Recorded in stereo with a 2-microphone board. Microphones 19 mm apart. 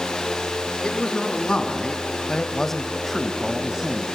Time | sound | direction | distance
0.8 | a man speaking | 50° left (ahead or behind) | 3 m